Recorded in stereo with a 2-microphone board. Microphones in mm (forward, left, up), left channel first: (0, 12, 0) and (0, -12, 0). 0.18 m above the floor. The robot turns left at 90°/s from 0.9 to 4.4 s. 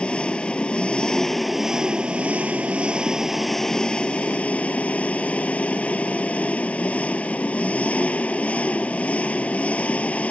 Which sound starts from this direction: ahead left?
An engine running, at 0.0 s.